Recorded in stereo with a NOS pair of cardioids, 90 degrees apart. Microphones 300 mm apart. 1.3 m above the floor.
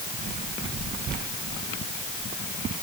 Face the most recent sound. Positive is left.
No sound to turn to.